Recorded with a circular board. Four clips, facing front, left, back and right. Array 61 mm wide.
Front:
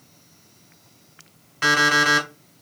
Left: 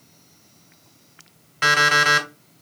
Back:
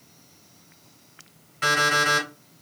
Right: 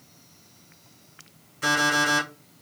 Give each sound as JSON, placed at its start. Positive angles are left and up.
{"t": 1.6, "sound": "an alarm clock", "azimuth_deg": 70, "distance_m": 1.6}